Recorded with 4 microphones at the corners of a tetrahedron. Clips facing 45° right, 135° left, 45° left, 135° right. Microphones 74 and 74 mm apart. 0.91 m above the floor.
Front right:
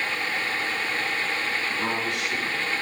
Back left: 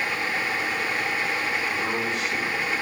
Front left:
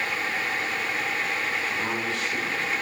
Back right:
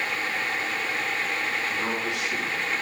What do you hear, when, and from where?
1.7 s a man speaking: 55° right, 5 m; by 2.7 s 65° right, 5 m